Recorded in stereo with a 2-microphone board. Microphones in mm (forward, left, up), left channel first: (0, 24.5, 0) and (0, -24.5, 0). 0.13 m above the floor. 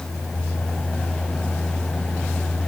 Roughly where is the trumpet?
I don't hear a trumpet.